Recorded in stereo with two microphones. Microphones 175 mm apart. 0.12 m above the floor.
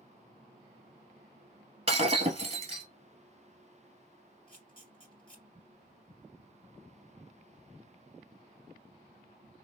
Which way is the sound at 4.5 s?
30° left (ahead or behind).